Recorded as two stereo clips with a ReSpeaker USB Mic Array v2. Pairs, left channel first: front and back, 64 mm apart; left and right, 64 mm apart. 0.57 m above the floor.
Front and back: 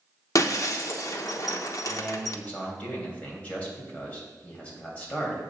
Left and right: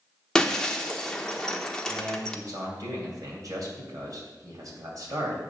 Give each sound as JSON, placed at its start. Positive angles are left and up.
{"t": 0.3, "sound": "breaking glass", "azimuth_deg": 15, "distance_m": 0.7}
{"t": 1.9, "sound": "a man speaking", "azimuth_deg": -65, "distance_m": 3.0}